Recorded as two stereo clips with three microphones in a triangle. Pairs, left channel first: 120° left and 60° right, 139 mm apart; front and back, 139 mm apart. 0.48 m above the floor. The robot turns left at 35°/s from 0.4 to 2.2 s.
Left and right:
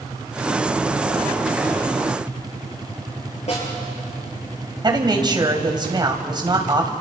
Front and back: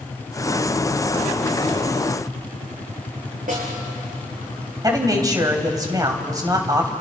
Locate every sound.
3.5 s a snare drum: 160° left, 8 m
4.8 s a man speaking: 115° right, 3 m